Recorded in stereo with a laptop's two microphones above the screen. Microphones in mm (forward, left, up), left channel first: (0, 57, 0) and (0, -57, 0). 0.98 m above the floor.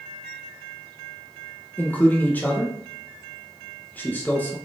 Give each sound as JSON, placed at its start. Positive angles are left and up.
{"t": 1.8, "sound": "a man speaking", "side_deg": 15, "distance_m": 0.6}